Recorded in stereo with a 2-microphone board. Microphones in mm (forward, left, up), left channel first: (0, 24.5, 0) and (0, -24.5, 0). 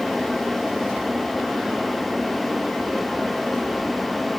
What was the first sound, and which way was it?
Only background noise.